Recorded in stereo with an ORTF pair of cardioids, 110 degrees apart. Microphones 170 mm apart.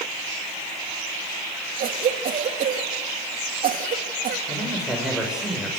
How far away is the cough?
About 3 m.